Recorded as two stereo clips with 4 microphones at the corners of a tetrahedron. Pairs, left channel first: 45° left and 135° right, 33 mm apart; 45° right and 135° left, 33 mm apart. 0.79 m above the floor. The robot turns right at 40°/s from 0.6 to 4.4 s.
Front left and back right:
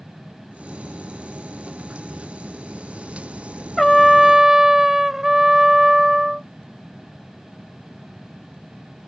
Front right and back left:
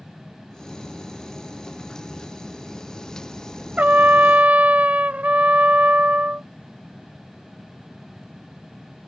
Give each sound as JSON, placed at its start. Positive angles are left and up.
{"t": 3.8, "sound": "a trumpet", "azimuth_deg": 125}